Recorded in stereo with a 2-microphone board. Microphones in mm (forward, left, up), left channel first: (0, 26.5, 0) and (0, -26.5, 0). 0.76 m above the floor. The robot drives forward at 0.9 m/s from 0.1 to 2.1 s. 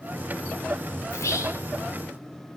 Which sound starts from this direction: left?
Whispering, at 1.1 s.